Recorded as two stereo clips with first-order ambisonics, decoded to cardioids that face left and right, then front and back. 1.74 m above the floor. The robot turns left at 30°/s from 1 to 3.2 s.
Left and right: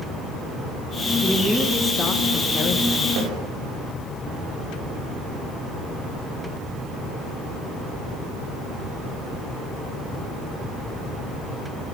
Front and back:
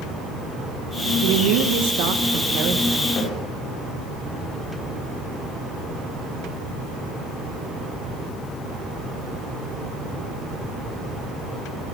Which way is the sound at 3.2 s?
65° right.